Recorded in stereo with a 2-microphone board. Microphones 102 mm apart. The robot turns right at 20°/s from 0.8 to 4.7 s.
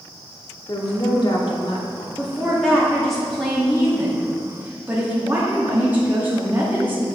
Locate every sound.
0.7 s a woman speaking: 45° left (ahead or behind), 1.0 m; by 2.1 s 60° left (ahead or behind), 1.0 m
2.2 s a woman speaking: 160° left, 1.1 m; by 7.0 s 150° right, 1.1 m